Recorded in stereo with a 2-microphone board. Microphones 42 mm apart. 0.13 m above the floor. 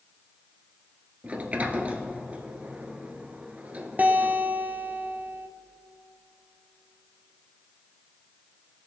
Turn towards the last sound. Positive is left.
turn(degrees=-40)  # may be behind; listen again after turning